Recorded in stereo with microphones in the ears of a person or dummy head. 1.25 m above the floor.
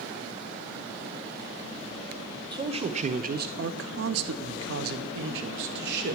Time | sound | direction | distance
2.5 | a man speaking | 20° right (ahead or behind) | 1.0 m